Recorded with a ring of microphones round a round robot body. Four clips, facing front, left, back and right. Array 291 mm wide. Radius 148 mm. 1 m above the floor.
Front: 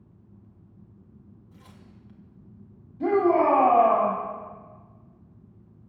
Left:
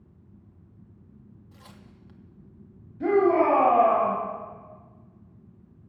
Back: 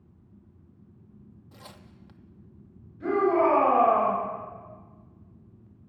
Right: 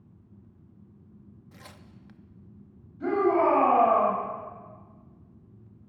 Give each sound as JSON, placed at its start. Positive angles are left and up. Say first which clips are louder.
{"t": 1.5, "sound": "tearing paper", "louder": "right 2 dB, back 4 dB", "azimuth_deg": -155, "distance_m": 0.6}
{"t": 3.0, "sound": "a shout", "louder": "left 3 dB, front 2 dB", "azimuth_deg": 25, "distance_m": 3.0}